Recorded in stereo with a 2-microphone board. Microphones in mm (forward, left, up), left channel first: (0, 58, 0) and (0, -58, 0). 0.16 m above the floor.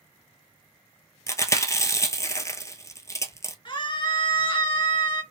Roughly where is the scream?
Left.